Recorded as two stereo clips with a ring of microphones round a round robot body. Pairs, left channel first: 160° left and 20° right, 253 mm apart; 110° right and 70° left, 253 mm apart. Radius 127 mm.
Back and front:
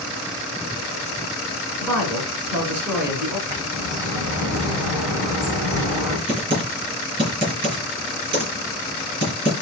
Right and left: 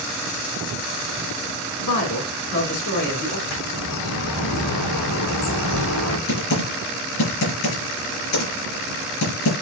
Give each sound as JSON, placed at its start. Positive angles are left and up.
{"t": 1.8, "sound": "a woman speaking", "azimuth_deg": -105, "distance_m": 4.0}
{"t": 3.5, "sound": "a bird", "azimuth_deg": -100, "distance_m": 5.0}
{"t": 6.3, "sound": "typing on a keyboard", "azimuth_deg": -95, "distance_m": 5.0}